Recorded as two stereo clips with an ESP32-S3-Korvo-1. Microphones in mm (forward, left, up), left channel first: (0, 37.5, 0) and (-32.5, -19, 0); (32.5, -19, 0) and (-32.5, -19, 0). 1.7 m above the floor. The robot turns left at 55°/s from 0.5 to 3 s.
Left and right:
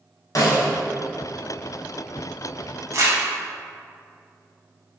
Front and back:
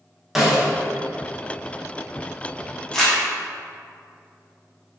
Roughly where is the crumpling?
Right.